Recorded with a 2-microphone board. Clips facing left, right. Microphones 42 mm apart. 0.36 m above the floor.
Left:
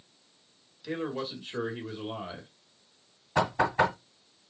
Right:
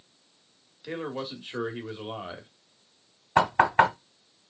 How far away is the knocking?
About 1.7 m.